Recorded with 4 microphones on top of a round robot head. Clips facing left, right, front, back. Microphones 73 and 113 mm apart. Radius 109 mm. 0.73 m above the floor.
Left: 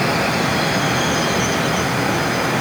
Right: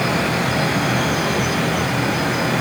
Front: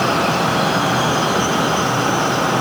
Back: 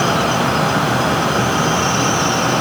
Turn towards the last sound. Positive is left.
No sound to turn to.